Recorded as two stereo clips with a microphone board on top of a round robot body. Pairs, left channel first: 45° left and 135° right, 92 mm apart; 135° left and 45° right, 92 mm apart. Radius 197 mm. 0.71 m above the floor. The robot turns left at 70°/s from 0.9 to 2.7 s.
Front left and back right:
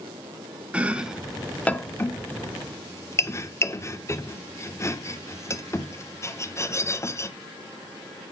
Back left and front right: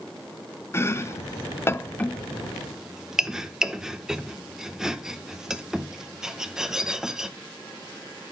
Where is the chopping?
160° left, 1.0 m; by 7.3 s 35° left, 1.0 m.